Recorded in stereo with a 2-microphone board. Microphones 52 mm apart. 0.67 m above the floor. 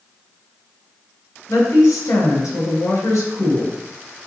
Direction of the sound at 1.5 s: 80° left.